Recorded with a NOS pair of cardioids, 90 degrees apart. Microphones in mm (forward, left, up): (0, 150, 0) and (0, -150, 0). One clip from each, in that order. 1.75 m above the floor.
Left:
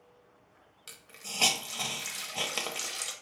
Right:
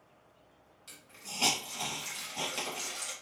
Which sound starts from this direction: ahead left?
A hiss, at 0.9 s.